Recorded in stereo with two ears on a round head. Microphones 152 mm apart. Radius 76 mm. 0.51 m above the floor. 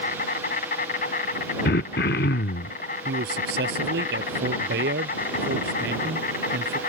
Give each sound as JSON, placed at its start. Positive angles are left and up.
{"t": 0.0, "sound": "an insect", "side_deg": 50}
{"t": 1.6, "sound": "throat clearing", "side_deg": 60}
{"t": 3.0, "sound": "a man speaking", "side_deg": -70}